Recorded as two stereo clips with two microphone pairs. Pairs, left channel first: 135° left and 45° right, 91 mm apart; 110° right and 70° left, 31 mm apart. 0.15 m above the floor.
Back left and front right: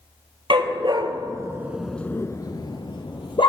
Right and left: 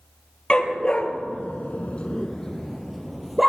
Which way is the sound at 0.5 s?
55° right.